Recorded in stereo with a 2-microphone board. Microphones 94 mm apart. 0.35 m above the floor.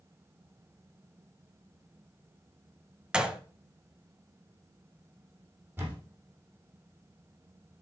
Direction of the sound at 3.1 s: 10° right (ahead or behind).